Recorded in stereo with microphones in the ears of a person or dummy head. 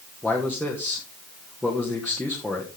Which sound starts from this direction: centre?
A man speaking, at 0.2 s.